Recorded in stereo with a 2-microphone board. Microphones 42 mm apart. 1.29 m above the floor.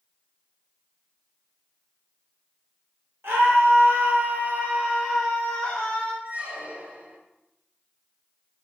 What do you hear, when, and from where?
3.2 s a scream: 70° right (ahead or behind), 1.3 m; by 6.1 s 25° left (ahead or behind), 1.2 m
6.2 s a squeak: 40° right (ahead or behind), 0.7 m